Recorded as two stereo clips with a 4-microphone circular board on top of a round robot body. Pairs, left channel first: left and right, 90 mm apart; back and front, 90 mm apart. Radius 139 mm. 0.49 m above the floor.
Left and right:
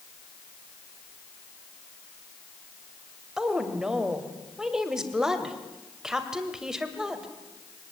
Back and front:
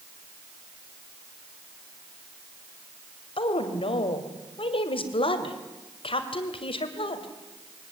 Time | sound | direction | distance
3.4 | a woman speaking | 175° right | 2.5 m